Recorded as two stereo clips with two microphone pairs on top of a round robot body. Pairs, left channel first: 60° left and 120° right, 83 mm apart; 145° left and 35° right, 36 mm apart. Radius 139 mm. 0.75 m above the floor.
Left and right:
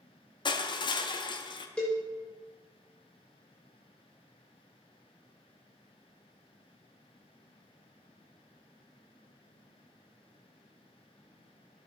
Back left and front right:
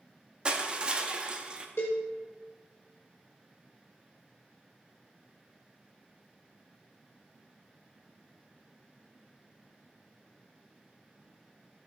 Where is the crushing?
30° left, 0.6 m.